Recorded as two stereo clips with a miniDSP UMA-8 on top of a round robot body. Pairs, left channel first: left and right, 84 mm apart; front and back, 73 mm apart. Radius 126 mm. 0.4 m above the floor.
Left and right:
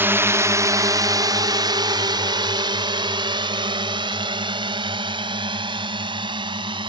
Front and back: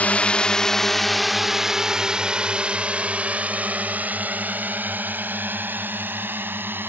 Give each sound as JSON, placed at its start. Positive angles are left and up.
{"t": 0.0, "sound": "a drone", "azimuth_deg": -50}